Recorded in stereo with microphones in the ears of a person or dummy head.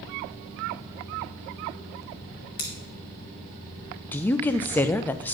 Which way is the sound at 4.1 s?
10° left (ahead or behind).